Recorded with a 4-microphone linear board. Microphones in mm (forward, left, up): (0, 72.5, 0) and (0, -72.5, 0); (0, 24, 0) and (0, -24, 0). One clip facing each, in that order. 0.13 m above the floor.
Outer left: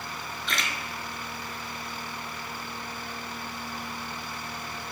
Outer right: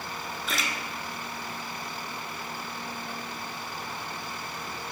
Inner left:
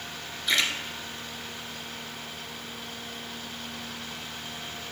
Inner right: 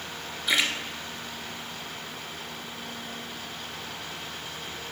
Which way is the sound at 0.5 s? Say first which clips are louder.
Even, inner right 1 dB; 5° right (ahead or behind).